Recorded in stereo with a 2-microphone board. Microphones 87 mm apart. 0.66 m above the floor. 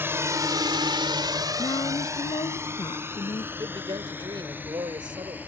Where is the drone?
25° right (ahead or behind); by 5.5 s 20° right (ahead or behind).